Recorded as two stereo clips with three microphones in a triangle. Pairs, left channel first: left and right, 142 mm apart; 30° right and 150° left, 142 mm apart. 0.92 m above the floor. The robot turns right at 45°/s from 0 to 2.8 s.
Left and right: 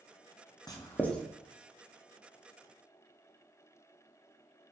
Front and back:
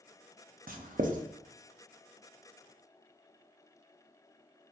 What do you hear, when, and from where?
0.7 s writing: 150° left, 0.6 m; by 1.2 s 175° left, 0.6 m